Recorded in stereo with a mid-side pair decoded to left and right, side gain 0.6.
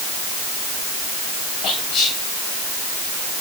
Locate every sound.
1.6 s whispering: 55° left, 9 m